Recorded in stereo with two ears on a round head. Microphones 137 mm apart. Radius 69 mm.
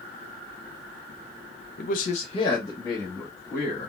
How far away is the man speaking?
About 0.5 m.